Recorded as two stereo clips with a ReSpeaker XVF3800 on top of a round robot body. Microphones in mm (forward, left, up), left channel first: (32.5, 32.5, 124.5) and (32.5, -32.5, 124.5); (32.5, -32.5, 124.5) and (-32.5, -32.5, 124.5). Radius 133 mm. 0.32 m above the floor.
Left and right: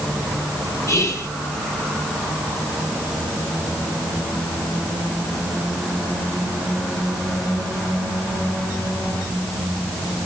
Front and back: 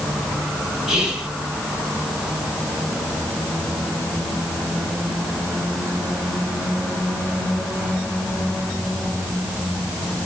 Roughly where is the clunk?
No clunk in this recording.